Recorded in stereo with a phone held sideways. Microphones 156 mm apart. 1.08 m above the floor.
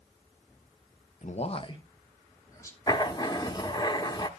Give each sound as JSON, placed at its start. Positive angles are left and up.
{"t": 1.2, "sound": "a man speaking", "side_deg": 50, "distance_m": 0.6}
{"t": 2.9, "sound": "writing", "side_deg": 25, "distance_m": 0.8}